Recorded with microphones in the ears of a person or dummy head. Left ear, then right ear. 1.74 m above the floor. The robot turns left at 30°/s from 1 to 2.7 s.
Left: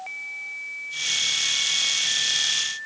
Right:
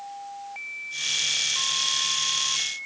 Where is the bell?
I don't hear a bell.